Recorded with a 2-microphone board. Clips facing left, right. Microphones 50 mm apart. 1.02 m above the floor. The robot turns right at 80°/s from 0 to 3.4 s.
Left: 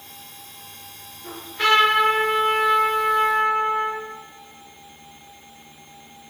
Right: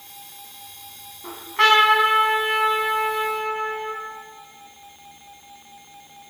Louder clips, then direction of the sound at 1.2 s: Right 3 dB; 145° right.